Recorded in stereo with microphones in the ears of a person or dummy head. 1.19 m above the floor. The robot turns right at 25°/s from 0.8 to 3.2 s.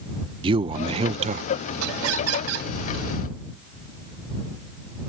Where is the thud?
No thud in this recording.